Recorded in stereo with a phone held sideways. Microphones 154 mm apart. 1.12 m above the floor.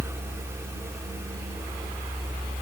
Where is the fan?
15° right (ahead or behind), 0.7 m.